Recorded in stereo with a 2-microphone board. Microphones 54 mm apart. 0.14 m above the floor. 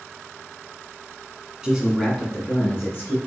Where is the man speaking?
15° right (ahead or behind), 1.1 m; by 3.2 s 45° left (ahead or behind), 1.8 m.